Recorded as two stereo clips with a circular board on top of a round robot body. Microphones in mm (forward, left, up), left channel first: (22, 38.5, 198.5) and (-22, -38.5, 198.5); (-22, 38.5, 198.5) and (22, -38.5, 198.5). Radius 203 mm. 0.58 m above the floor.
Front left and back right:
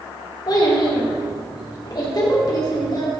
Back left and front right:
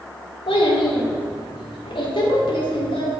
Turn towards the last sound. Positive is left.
turn(degrees=105)